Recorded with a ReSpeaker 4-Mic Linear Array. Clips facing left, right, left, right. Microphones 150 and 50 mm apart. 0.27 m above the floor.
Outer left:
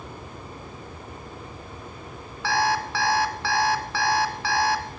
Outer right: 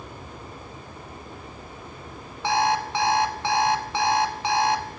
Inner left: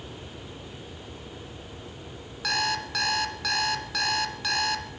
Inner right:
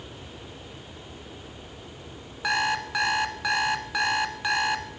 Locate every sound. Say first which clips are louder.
2.4 s an alarm clock: outer right 1 dB, inner right 3 dB; 20° right (ahead or behind), 1.2 m